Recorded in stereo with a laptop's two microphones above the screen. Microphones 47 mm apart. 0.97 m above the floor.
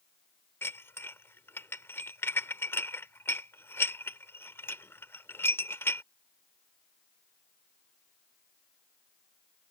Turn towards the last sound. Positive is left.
turn(degrees=60)  # may be behind; listen again after turning